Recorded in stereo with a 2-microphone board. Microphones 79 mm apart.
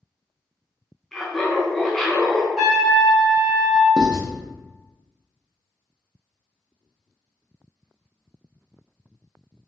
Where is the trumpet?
5° right (ahead or behind), 0.9 m.